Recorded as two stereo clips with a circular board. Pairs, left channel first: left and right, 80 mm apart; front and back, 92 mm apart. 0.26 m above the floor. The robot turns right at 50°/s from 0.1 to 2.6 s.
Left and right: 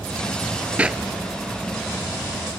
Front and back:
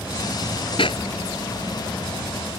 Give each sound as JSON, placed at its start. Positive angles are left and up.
{"t": 0.8, "sound": "a clap", "azimuth_deg": -15}